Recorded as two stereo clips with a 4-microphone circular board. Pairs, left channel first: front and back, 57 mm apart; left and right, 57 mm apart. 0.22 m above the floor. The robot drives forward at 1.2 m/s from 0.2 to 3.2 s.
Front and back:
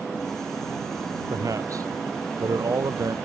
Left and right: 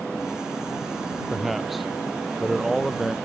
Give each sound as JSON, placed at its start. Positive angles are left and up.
{"t": 1.3, "sound": "a man speaking", "azimuth_deg": -175}